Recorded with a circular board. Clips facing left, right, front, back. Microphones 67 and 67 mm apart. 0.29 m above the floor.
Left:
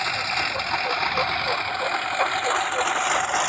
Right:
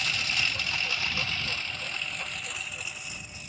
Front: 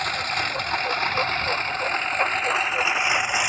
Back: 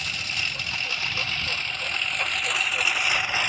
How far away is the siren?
No siren in this recording.